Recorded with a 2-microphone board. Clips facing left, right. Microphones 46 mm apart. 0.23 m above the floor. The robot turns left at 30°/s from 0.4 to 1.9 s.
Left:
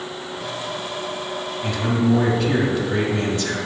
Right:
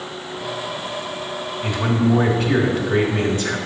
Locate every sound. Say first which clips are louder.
1.6 s a man speaking: right 1 dB; 20° right (ahead or behind), 1.0 m